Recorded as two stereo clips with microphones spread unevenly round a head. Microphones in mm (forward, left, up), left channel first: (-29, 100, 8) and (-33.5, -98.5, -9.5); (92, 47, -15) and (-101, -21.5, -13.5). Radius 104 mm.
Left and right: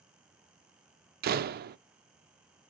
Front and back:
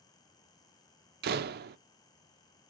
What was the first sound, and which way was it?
A door slam, 130° right.